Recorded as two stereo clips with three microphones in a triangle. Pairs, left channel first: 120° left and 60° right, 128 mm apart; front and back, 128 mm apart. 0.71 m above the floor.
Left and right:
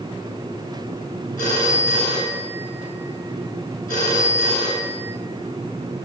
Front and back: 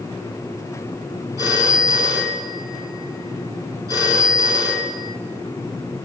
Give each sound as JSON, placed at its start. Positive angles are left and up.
{"t": 1.4, "sound": "a phone ringing", "azimuth_deg": 115, "distance_m": 6.5}